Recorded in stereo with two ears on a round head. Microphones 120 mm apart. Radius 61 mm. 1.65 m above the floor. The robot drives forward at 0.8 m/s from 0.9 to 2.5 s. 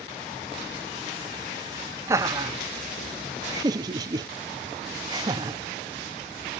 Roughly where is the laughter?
Centre.